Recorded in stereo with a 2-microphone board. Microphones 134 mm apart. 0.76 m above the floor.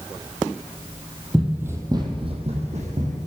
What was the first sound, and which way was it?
Running footsteps, centre (ahead or behind).